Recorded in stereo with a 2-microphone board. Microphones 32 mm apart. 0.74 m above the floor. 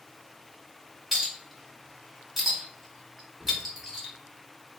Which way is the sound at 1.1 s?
5° right (ahead or behind).